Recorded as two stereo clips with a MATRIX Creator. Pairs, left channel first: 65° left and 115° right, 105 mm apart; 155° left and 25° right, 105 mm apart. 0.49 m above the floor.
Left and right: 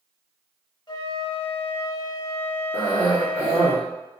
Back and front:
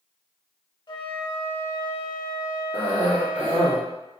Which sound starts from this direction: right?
A cough, at 2.7 s.